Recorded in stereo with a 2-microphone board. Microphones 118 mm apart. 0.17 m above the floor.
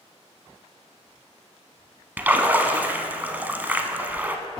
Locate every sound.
2.2 s a splash: 15° right (ahead or behind), 0.6 m